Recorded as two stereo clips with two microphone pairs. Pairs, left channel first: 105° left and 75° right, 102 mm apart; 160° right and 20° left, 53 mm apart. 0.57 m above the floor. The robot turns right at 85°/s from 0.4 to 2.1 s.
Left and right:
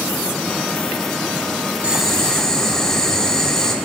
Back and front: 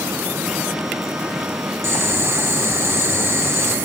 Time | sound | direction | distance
1.8 | boiling | straight ahead | 1.0 m